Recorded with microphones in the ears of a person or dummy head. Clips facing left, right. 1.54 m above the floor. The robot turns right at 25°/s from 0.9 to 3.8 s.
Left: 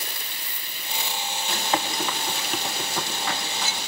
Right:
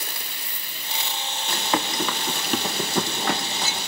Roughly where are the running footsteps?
Right.